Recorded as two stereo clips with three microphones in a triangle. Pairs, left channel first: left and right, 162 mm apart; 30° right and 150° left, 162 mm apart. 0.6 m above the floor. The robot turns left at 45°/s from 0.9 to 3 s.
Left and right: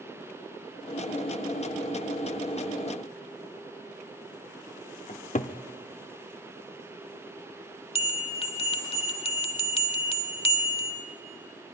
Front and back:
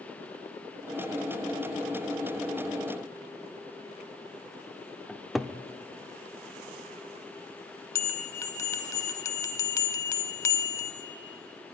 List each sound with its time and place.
5.1 s a cupboard door: 60° left, 0.7 m
8.0 s a bell: 40° left, 1.0 m